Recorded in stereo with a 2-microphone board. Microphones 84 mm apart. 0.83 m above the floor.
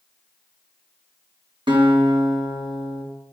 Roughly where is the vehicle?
I don't hear a vehicle.